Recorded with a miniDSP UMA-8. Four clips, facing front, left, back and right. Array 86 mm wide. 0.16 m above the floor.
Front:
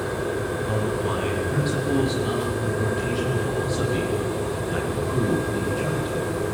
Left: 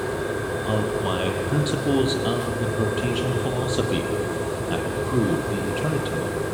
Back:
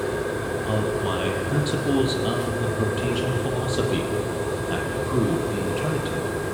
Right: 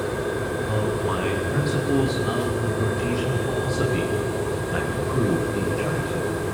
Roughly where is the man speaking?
Behind left.